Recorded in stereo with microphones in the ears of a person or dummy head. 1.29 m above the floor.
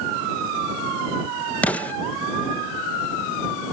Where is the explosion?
10° left (ahead or behind).